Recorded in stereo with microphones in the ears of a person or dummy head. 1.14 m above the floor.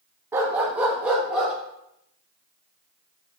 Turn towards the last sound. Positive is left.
turn(degrees=-10)  # may be behind; listen again after turning